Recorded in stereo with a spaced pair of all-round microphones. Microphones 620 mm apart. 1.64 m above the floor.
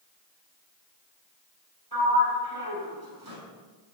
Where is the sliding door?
35° right (ahead or behind), 4 m.